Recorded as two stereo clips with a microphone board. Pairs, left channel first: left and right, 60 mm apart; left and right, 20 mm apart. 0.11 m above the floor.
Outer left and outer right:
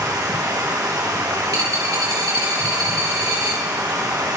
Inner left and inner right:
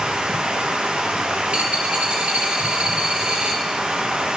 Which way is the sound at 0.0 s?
90° right.